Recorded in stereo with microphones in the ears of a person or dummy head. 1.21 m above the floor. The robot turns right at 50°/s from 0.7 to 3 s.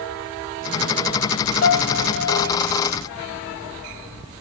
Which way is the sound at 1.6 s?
70° left.